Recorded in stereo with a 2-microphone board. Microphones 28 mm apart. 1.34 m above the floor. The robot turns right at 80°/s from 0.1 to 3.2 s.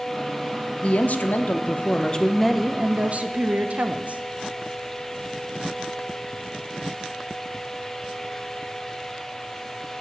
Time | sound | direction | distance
0.8 | a woman speaking | 45° left | 0.7 m